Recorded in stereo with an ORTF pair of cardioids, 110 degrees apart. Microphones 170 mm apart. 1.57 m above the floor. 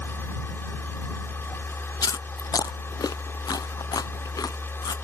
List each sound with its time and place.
0.0 s a machine running: 15° left
2.0 s chewing: 20° left